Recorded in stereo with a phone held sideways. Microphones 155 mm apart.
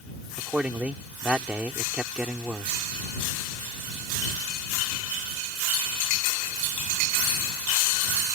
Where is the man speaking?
10° right (ahead or behind).